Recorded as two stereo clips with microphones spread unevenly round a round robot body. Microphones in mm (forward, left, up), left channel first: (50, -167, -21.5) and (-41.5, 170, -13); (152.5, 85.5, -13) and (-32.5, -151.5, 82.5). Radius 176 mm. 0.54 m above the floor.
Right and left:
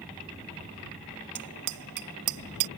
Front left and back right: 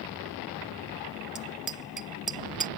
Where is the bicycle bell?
145° left; by 2.7 s 140° left.